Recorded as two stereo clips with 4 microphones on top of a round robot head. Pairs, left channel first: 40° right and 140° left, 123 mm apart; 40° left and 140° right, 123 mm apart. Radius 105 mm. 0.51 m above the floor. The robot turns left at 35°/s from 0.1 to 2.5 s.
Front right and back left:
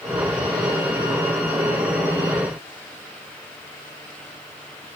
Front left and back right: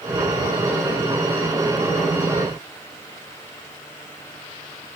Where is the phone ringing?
I don't hear a phone ringing.